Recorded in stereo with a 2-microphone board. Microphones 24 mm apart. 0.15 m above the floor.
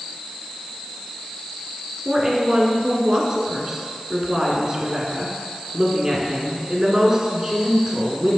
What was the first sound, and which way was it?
A woman speaking, 25° right (ahead or behind).